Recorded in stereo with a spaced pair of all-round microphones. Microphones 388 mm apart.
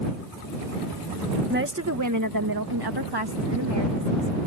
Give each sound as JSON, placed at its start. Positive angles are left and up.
{"t": 1.5, "sound": "a woman speaking", "side_deg": -25}